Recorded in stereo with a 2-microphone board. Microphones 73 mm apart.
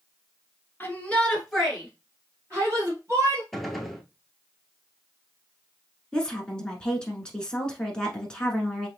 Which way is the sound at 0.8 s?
30° left (ahead or behind).